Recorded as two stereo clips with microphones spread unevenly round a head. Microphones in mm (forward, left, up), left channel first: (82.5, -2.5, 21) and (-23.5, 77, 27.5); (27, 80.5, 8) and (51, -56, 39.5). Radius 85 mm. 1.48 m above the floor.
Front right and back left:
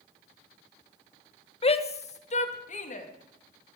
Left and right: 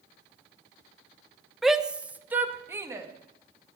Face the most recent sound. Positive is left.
turn(degrees=-10)